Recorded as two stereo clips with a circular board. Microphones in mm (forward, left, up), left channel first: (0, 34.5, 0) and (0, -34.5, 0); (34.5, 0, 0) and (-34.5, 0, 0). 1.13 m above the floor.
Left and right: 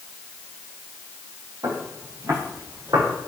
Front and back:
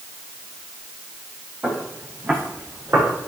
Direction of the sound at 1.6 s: 110° right.